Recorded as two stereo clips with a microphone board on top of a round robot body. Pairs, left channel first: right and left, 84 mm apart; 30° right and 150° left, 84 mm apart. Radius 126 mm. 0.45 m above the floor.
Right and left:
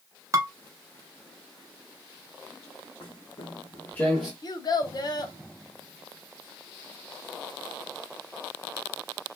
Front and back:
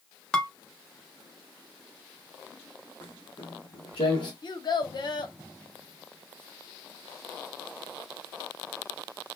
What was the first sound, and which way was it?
Dishes clattering, 50° left.